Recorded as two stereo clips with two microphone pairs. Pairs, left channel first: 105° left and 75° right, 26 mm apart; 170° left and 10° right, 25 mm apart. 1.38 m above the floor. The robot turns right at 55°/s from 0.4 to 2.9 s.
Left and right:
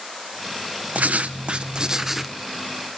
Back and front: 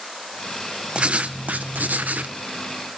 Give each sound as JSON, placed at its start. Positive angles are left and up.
{"t": 0.9, "sound": "writing", "azimuth_deg": -60, "distance_m": 0.7}